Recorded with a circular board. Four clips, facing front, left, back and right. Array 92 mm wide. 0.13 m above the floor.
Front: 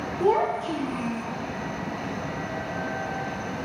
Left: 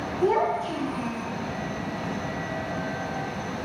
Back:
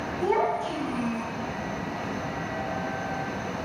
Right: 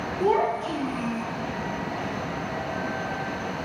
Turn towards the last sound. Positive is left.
turn(degrees=-40)